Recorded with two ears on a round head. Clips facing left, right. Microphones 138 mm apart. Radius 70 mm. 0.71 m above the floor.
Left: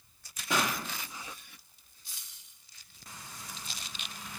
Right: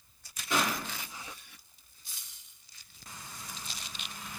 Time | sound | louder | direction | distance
0.5 | a pop | even | 60° left (ahead or behind) | 0.9 m